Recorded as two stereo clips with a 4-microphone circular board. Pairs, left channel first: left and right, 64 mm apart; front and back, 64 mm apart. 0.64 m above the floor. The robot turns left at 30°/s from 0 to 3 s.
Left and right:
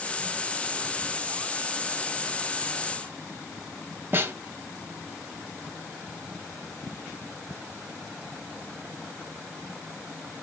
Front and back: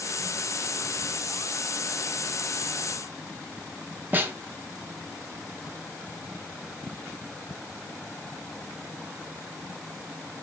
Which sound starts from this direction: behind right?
A snare drum, at 4.1 s.